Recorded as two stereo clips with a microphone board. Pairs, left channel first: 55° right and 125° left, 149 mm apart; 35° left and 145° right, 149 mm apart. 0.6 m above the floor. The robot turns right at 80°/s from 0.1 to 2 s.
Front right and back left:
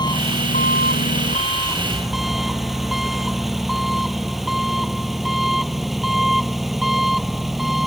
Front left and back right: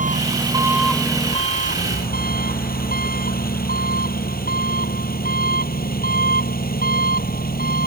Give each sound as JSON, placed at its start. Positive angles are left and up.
{"t": 0.0, "sound": "an engine running", "azimuth_deg": -115}